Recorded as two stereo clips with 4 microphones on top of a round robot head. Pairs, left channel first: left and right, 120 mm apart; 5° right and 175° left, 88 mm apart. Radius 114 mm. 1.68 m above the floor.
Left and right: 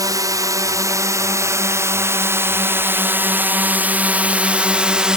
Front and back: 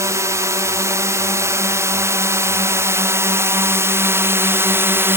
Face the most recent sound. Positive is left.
turn(degrees=-165)